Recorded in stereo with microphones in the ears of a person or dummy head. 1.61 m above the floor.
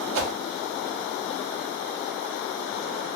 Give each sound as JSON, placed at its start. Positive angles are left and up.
{"t": 0.1, "sound": "a whoosh", "side_deg": -65, "distance_m": 0.6}